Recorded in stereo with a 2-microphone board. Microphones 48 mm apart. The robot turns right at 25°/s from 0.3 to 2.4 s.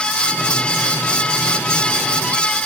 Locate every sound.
Only background noise.